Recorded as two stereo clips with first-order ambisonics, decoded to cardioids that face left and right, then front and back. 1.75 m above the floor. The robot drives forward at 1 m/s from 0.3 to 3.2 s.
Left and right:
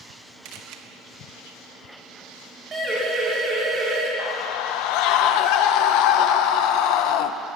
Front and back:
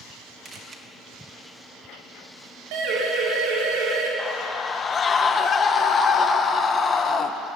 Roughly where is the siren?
Behind.